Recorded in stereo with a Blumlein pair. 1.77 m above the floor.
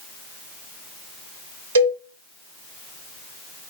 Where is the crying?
I don't hear crying.